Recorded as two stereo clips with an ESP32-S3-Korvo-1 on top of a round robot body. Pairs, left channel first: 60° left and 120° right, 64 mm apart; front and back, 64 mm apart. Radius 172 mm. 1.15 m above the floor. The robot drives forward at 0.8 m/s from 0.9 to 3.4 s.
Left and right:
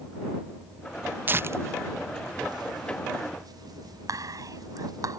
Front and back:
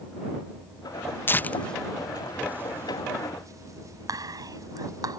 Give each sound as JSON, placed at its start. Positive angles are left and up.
{"t": 1.3, "sound": "tearing paper", "azimuth_deg": -60}
{"t": 4.1, "sound": "whispering", "azimuth_deg": -155}